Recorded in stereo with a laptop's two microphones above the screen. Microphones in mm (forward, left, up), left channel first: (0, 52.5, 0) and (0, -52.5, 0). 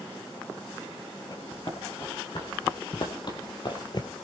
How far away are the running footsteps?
About 5 m.